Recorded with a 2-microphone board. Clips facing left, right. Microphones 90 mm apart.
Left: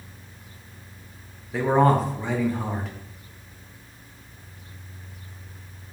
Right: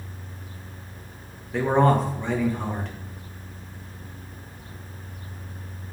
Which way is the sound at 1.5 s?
Centre (ahead or behind).